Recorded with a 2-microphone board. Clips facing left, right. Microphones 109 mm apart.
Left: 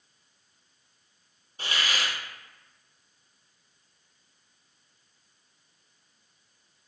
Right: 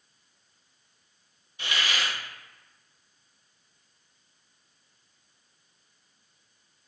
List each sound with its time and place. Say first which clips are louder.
1.6 s a hiss: even; 40° left (ahead or behind), 0.8 m